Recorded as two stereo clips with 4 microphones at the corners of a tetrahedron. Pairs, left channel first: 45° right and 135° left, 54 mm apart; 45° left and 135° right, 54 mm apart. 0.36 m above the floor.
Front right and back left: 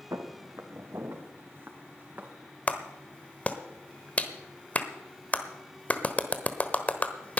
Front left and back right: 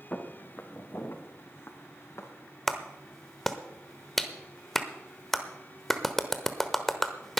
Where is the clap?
35° right, 1.1 m.